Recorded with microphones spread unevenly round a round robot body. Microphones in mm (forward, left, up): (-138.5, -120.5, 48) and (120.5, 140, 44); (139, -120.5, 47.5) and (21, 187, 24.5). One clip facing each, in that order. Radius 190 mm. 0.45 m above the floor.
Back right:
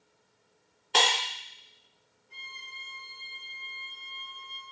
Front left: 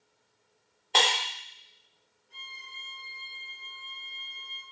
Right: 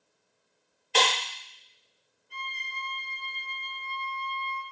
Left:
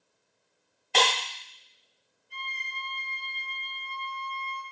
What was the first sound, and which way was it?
Breaking glass, 155° left.